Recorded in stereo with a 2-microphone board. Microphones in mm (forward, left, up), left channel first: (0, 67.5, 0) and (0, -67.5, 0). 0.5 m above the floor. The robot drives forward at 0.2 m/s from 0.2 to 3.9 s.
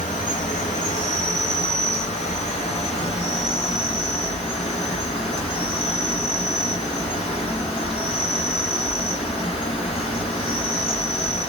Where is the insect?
75° left (ahead or behind), 1.2 m; by 11.5 s 50° left (ahead or behind), 1.6 m.